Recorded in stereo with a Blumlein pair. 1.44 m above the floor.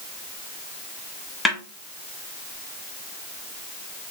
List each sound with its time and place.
1.4 s a snare drum: 5° left, 1.1 m